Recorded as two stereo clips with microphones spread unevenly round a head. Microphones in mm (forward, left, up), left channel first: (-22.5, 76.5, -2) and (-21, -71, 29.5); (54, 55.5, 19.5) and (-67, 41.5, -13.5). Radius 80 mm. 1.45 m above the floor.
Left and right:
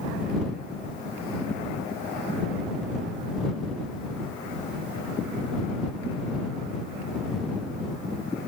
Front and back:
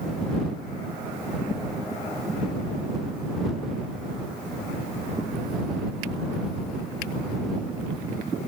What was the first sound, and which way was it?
Only background noise.